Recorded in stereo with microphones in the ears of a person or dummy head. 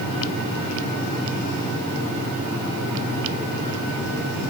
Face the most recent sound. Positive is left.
No sound to turn to.